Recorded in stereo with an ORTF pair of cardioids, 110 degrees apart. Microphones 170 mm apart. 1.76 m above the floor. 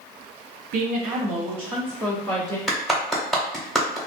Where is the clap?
Straight ahead, 0.9 m.